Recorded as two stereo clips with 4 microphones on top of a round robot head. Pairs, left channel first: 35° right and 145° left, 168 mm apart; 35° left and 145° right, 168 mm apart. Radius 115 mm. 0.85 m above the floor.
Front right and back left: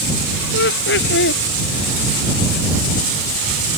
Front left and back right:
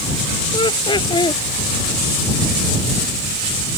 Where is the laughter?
30° right.